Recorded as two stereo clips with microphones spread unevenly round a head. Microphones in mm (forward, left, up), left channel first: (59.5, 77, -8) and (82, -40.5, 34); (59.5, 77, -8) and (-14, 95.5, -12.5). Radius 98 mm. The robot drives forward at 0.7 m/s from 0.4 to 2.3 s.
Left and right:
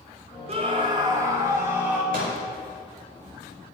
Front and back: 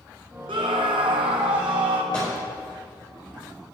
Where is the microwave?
85° right, 5 m.